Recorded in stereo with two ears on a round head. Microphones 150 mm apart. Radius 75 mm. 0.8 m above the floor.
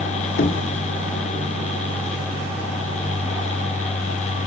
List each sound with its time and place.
0.4 s knocking: 60° left (ahead or behind), 2.0 m